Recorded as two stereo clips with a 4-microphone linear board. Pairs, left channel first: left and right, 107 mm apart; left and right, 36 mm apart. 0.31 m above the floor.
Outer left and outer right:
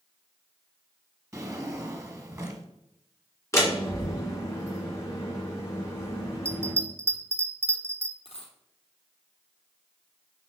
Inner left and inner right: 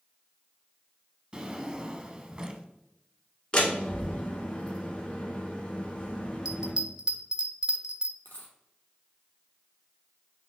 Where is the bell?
25° right (ahead or behind), 0.7 m.